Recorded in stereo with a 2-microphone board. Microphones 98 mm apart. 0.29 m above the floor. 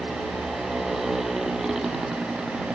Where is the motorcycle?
Centre (ahead or behind); by 2.8 s 5° right (ahead or behind).